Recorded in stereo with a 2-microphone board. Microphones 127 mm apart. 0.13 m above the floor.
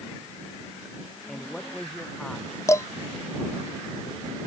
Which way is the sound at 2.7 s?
25° left (ahead or behind).